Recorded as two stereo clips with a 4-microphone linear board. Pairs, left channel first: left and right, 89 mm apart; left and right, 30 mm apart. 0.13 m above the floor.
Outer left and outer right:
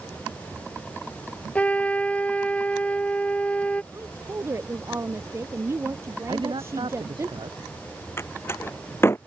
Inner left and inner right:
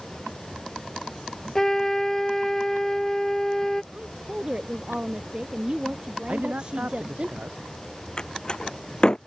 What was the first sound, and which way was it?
A trumpet, 15° left (ahead or behind).